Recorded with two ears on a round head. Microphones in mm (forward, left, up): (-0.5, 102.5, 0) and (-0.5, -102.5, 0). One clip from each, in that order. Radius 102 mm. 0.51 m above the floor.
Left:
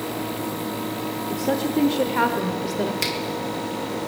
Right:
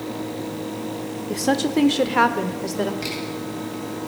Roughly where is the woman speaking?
Right.